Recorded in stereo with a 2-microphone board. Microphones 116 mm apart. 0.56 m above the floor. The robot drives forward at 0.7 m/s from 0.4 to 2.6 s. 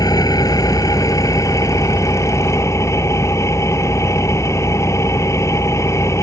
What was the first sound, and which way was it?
An engine running, 30° left (ahead or behind).